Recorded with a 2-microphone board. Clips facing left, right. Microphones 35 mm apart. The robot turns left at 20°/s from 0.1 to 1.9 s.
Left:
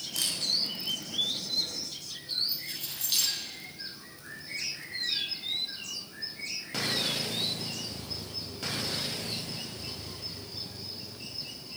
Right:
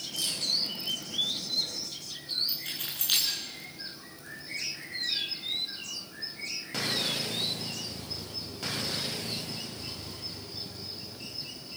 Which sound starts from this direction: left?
A camera shutter, at 0.1 s.